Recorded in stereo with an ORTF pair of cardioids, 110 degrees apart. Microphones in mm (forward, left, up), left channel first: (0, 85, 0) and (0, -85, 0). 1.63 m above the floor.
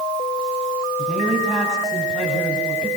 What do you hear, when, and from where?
1.0 s a man speaking: 5° right, 9.5 m